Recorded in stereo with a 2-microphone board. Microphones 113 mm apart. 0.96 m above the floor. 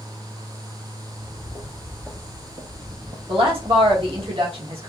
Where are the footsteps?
25° left (ahead or behind), 1.0 m; by 4.3 s 50° right (ahead or behind), 1.6 m.